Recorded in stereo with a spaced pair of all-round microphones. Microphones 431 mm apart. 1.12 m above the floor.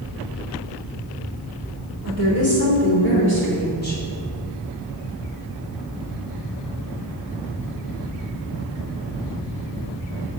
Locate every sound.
2.0 s a woman speaking: 35° left (ahead or behind), 4 m; by 4.0 s 20° left (ahead or behind), 4 m